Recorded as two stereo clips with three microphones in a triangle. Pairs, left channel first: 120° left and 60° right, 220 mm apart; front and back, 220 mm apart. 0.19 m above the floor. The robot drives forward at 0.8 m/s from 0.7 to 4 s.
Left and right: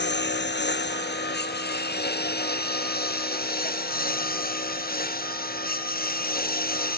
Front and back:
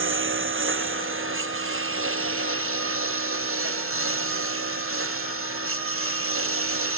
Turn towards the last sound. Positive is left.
turn(degrees=165)